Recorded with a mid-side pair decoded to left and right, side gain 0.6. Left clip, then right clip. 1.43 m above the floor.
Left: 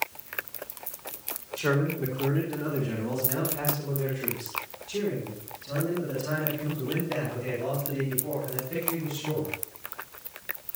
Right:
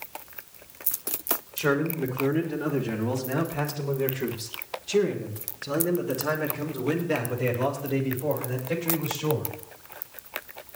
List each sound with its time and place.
1.6 s a man speaking: 20° right, 4 m; by 9.5 s 80° right, 7.5 m